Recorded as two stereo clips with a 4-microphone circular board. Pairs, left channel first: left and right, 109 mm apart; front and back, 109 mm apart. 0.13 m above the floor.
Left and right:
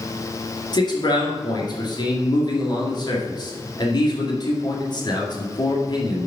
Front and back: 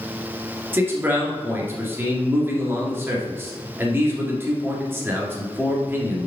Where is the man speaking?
120° left, 1.9 m.